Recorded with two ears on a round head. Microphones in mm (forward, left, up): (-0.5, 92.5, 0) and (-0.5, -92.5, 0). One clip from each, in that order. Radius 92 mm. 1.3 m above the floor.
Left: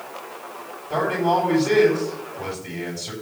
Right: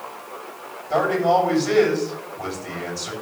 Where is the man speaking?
35° right (ahead or behind), 8 m.